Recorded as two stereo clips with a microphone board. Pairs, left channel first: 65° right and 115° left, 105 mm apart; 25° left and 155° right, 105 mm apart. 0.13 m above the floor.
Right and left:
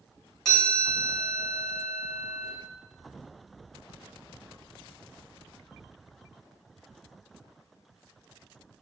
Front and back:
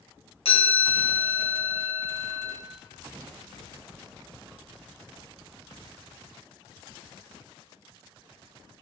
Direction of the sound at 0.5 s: 15° left.